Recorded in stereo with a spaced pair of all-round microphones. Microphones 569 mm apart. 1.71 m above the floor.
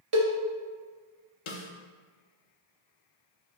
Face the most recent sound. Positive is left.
turn(degrees=60)  # may be behind; listen again after turning